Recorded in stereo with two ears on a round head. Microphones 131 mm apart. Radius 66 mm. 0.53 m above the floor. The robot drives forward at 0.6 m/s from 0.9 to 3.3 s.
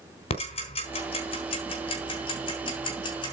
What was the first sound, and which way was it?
Ticking, 45° left (ahead or behind).